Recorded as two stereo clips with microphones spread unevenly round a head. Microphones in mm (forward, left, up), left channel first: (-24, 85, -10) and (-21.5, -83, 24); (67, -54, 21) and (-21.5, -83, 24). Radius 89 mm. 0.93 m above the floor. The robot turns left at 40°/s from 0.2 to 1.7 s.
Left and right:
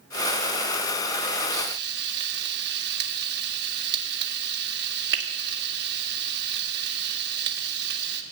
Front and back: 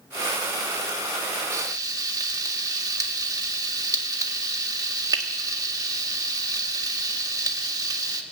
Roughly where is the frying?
Right.